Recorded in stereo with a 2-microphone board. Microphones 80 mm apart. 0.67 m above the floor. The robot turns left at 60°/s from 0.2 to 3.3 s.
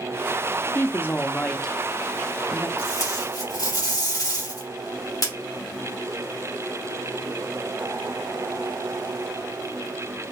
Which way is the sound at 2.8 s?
150° left.